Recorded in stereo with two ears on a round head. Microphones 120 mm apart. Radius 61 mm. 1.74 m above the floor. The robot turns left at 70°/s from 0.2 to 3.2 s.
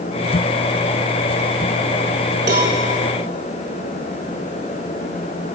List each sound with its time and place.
2.5 s a cowbell: 70° right (ahead or behind), 5.5 m; by 2.7 s 75° right (ahead or behind), 5.5 m